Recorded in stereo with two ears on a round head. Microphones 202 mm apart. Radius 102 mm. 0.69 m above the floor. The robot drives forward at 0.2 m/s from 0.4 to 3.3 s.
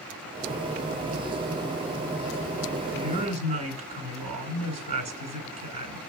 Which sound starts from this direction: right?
A woman speaking, at 2.9 s.